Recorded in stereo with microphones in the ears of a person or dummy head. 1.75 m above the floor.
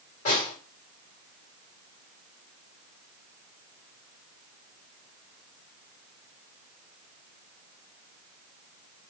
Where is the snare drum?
40° left (ahead or behind), 1.7 m.